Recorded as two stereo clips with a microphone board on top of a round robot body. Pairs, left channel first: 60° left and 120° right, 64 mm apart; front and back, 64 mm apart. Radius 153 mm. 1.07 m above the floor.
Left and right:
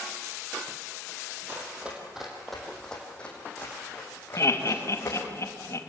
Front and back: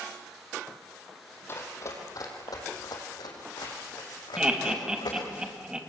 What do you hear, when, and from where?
1.5 s running footsteps: 55° right, 3 m; by 5.4 s 5° left, 6 m
4.4 s laughter: 100° left, 2.5 m